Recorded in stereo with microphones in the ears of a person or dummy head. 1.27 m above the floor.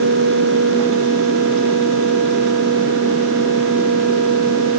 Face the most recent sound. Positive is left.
No sound to turn to.